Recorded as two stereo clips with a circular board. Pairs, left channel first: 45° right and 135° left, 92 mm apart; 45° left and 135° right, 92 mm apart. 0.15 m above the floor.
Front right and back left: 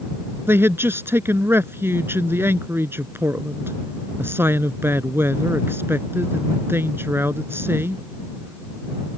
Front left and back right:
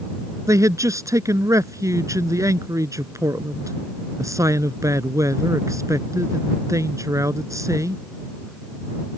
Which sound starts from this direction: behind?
A man speaking, at 0.5 s.